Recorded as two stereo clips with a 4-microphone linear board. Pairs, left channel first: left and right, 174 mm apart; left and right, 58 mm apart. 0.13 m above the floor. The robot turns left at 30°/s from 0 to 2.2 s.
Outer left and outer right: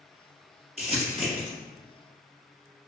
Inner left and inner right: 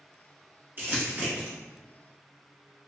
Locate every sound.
0.8 s crumpling: 40° right (ahead or behind), 1.6 m; by 1.5 s 35° right (ahead or behind), 1.6 m